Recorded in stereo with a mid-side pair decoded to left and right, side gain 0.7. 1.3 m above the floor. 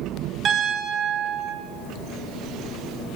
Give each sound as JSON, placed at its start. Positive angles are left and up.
{"t": 0.5, "sound": "a piano", "azimuth_deg": -40, "distance_m": 2.0}